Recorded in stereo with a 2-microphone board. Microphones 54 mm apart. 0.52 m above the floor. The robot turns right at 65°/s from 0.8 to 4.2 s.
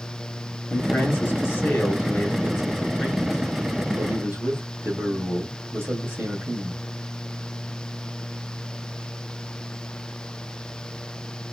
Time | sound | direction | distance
0.7 | a man speaking | 65° left | 1.4 m